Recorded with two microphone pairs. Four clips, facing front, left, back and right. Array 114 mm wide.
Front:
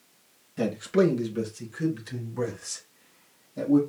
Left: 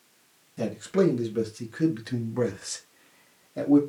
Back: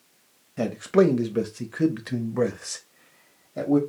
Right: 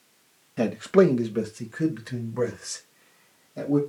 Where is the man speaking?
110° right, 0.8 m; by 3.8 s 155° left, 1.6 m.